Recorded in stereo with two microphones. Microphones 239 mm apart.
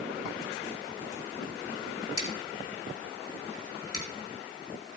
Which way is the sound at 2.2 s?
80° left.